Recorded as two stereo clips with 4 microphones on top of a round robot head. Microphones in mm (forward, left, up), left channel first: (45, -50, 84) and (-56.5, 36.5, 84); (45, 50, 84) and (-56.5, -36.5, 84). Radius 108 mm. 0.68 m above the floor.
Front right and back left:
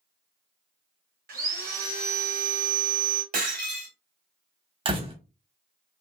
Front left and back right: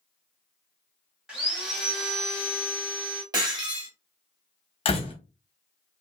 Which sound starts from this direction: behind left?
Sawing, at 1.3 s.